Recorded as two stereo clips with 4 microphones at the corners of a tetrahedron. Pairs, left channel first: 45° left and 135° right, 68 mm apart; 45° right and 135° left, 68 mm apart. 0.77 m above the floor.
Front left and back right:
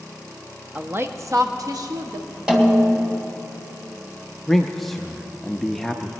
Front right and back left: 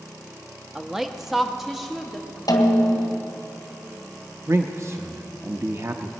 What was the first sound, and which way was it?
A woman speaking, 160° right.